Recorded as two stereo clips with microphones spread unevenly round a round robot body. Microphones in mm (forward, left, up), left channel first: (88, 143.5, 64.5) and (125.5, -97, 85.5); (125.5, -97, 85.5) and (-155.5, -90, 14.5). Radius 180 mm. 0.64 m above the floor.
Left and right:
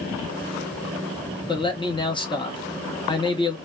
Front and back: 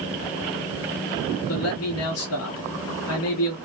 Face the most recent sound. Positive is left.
turn(degrees=35)